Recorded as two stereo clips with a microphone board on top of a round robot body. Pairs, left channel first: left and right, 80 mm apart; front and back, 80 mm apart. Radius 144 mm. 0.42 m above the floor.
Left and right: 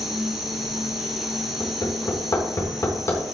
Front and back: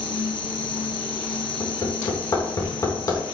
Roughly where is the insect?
Ahead.